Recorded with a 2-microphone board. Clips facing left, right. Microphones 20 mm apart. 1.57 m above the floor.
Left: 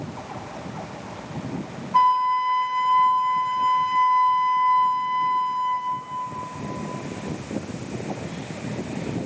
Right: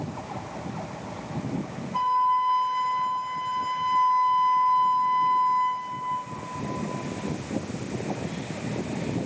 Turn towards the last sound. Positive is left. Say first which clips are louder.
# left 4 dB
turn(degrees=45)  # may be behind; listen again after turning